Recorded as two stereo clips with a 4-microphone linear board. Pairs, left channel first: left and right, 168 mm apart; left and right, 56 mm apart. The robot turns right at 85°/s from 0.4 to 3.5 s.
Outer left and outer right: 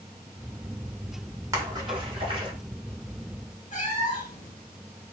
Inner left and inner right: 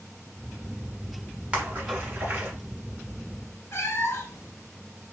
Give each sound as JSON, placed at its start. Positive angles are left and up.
{"t": 1.5, "sound": "a splash", "side_deg": -20, "distance_m": 1.1}
{"t": 3.7, "sound": "a cat meowing", "side_deg": 50, "distance_m": 0.8}